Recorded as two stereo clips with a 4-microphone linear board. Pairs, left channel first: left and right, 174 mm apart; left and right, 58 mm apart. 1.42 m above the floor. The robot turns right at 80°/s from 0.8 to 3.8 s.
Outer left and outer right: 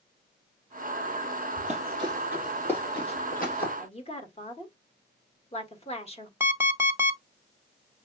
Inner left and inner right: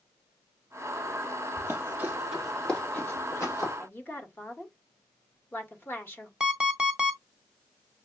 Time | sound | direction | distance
1.6 | running footsteps | 45° right (ahead or behind) | 2 m
3.8 | a woman speaking | 35° left (ahead or behind) | 1.3 m
6.4 | an alarm clock | 15° right (ahead or behind) | 0.8 m